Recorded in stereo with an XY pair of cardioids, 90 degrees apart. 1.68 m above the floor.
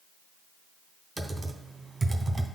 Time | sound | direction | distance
1.2 | typing on a keyboard | 30° right | 1.3 m